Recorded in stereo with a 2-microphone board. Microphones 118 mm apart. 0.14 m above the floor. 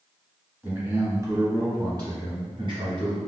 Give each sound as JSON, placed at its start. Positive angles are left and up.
{"t": 0.6, "sound": "a man speaking", "side_deg": -15, "distance_m": 1.3}